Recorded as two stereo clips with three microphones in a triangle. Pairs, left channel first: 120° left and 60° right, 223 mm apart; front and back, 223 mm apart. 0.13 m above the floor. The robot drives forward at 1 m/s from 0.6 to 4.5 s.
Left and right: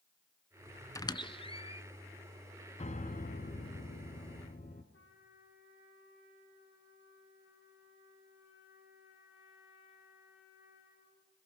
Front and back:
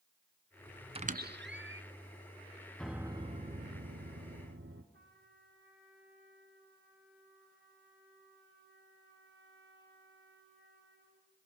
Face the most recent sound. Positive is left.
turn(degrees=145)